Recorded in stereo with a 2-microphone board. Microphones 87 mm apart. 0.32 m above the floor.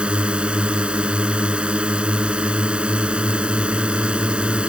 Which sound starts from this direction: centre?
A drone, at 0.0 s.